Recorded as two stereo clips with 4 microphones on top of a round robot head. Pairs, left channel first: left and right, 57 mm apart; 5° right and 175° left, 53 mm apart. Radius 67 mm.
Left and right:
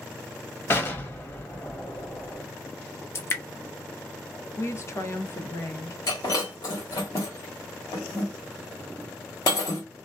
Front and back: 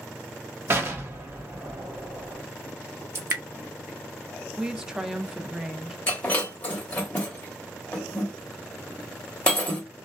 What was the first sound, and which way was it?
An explosion, 140° left.